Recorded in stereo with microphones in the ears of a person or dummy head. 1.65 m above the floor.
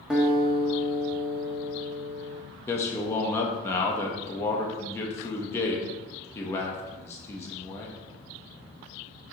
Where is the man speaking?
20° left (ahead or behind), 0.9 m.